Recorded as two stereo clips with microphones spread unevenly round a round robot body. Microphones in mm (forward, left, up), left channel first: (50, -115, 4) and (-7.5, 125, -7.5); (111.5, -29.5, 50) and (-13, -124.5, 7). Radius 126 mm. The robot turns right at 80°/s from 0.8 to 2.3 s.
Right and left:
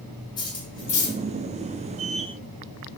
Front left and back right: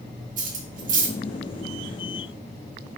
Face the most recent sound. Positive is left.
turn(degrees=-30)